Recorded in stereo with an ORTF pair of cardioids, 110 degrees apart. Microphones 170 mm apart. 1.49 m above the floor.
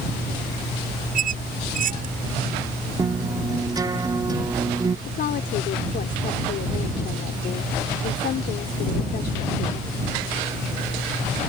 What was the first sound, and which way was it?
A squeak, 55° right.